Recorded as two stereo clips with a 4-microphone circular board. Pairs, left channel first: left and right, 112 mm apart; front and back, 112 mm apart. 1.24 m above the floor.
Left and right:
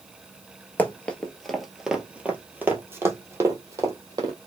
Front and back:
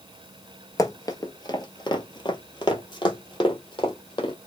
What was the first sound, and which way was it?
Running footsteps, 25° left.